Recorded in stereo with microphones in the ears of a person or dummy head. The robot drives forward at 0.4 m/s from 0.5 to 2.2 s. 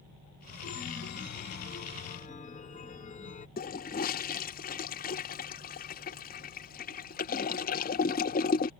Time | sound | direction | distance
0.6 | a chime | 70° left (ahead or behind) | ?
3.6 | a toilet flushing | 40° left (ahead or behind) | ?